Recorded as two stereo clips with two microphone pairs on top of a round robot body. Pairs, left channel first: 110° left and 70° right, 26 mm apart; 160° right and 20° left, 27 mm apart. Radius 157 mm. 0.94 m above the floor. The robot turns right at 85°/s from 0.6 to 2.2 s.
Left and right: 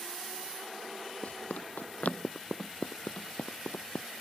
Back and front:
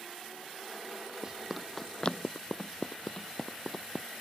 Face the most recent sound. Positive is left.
turn(degrees=105)